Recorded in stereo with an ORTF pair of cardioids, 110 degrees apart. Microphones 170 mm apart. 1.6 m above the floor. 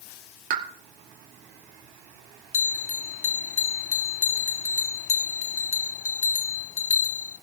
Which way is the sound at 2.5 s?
40° left.